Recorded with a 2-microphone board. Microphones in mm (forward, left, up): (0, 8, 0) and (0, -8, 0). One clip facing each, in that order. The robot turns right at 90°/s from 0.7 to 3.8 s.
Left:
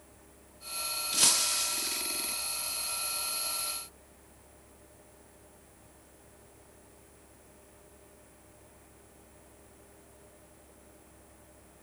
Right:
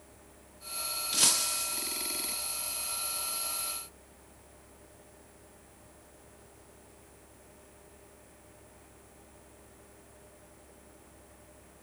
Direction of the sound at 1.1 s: 10° right.